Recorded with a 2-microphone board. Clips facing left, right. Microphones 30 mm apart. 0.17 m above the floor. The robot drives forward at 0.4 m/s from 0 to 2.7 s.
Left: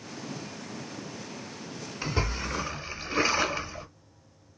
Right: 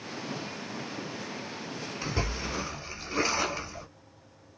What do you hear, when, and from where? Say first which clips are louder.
2.0 s a splash: left 3 dB; 15° left (ahead or behind), 1.6 m